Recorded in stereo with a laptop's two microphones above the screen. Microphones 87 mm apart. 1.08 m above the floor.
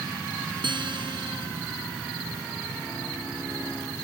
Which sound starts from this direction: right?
A guitar, at 0.6 s.